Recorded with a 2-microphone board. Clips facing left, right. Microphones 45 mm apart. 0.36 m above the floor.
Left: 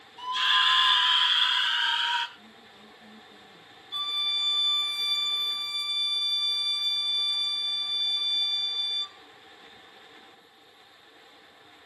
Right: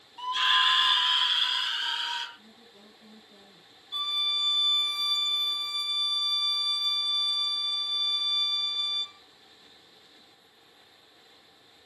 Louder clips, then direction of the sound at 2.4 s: Left 3 dB; 15° right (ahead or behind).